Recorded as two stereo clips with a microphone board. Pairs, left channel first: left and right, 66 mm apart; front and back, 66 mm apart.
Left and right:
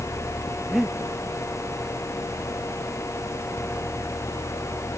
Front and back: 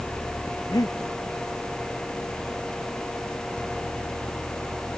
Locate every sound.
0.7 s breathing: 5° right